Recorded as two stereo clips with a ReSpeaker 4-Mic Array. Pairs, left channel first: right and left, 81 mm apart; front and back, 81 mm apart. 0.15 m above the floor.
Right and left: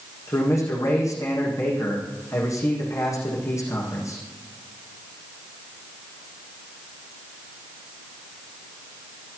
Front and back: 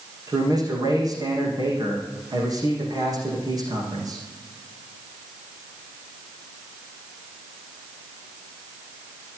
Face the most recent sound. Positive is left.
turn(degrees=-140)